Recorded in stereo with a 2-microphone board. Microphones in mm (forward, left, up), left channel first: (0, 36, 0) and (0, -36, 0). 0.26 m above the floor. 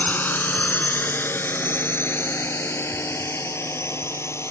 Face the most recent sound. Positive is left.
turn(degrees=40)  # may be behind; listen again after turning